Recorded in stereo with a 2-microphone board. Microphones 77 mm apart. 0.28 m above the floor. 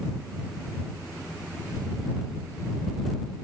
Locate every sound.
Only background noise.